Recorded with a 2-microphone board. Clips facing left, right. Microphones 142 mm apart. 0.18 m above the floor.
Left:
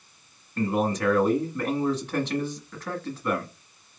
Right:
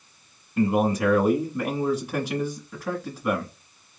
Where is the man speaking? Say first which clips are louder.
Right 3 dB; 10° right (ahead or behind), 1.1 m.